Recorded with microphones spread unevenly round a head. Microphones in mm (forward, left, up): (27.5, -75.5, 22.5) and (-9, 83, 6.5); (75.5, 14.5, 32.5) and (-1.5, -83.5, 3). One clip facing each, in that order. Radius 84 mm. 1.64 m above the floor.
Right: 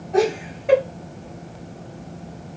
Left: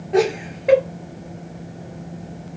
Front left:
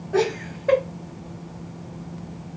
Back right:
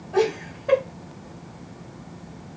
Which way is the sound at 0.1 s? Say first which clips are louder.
Left 1 dB, even; 100° left.